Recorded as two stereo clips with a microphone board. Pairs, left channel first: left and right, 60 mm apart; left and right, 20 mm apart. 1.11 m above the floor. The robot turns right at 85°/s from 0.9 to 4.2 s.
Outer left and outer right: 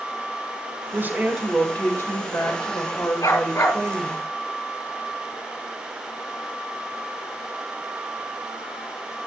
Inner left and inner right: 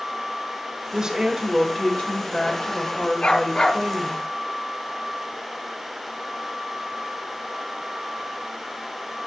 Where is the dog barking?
100° left, 9 m; by 3.8 s 150° left, 9 m.